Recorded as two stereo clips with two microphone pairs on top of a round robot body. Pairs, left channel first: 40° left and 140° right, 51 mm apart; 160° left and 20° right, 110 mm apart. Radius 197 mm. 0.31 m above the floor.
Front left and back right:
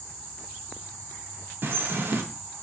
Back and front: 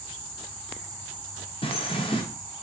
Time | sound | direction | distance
1.6 | a bird | 175° right | 1.0 m